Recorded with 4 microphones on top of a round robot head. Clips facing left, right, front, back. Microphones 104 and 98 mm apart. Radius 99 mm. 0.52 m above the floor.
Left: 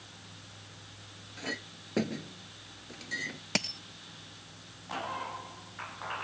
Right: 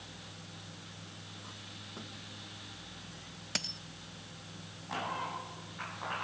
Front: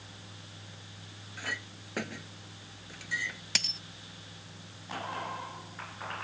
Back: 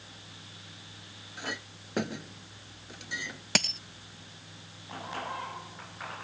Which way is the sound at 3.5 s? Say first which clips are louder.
Left 8 dB, back 11 dB; 140° left.